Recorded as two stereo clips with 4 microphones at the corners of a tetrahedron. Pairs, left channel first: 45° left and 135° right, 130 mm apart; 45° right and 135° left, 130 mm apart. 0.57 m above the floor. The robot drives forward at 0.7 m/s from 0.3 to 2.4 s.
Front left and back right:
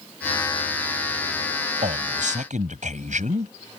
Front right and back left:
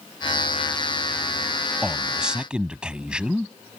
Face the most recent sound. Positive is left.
turn(degrees=-140)